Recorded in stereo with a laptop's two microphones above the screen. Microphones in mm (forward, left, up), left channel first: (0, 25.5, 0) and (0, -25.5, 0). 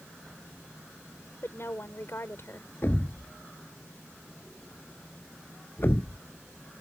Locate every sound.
1.4 s a woman speaking: 55° left (ahead or behind)
2.8 s a thud: 50° left (ahead or behind)